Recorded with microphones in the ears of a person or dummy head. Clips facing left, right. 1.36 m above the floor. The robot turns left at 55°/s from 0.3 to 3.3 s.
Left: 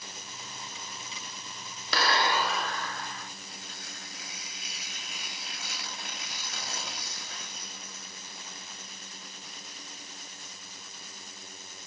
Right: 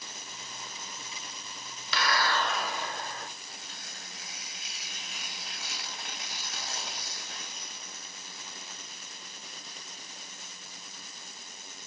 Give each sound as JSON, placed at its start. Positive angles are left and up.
{"t": 1.9, "sound": "a clap", "azimuth_deg": 35, "distance_m": 0.7}
{"t": 3.5, "sound": "tearing paper", "side_deg": 60, "distance_m": 1.6}